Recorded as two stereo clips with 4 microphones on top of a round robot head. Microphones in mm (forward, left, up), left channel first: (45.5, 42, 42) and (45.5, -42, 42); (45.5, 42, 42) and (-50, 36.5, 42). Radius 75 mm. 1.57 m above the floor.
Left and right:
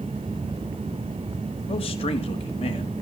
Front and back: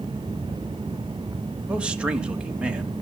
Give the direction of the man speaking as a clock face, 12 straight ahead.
9 o'clock.